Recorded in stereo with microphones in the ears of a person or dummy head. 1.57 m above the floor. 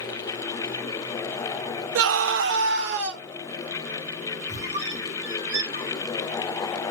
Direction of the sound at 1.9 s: 70° right (ahead or behind).